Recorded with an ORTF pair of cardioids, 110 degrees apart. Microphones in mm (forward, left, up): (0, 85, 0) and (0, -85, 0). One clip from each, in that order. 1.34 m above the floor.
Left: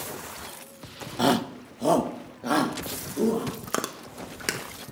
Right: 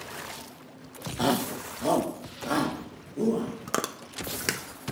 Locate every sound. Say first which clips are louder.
1.2 s a shout: left 3 dB; 15° left, 0.8 m; by 3.5 s 25° left, 3 m
3.7 s chewing: even; straight ahead, 1.2 m